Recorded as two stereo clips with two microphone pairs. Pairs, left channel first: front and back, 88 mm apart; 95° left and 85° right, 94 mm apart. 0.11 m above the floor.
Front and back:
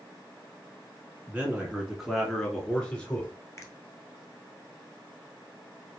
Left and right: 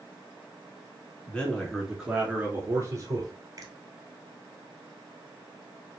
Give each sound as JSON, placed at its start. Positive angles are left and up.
{"t": 1.3, "sound": "a man speaking", "azimuth_deg": 140, "distance_m": 1.6}
{"t": 3.6, "sound": "a finger snap", "azimuth_deg": -50, "distance_m": 1.5}